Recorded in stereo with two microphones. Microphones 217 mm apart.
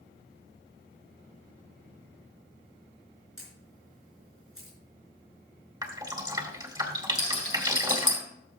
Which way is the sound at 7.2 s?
70° left (ahead or behind).